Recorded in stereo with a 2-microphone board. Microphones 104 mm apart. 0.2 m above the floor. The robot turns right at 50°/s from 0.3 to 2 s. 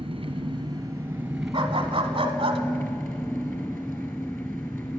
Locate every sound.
0.0 s an engine running: 60° right, 1.5 m; by 5.0 s 25° left, 1.5 m
1.5 s a dog barking: 50° right (ahead or behind), 0.9 m; by 2.6 s 60° right (ahead or behind), 0.9 m